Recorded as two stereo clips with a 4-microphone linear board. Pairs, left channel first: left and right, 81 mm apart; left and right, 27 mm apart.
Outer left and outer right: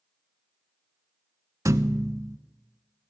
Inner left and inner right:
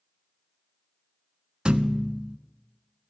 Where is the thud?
40° right (ahead or behind), 0.6 m.